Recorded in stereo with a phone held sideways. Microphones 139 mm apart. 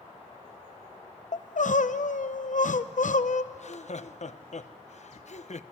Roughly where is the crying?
Left.